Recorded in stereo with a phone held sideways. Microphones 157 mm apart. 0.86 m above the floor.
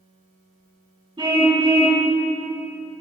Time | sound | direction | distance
1.2 | a car horn | 30° right (ahead or behind) | 3 m